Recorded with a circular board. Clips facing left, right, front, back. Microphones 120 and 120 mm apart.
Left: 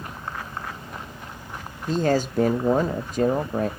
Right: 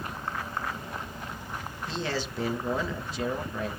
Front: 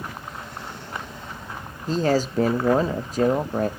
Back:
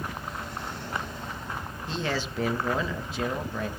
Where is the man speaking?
50° left, 0.6 m.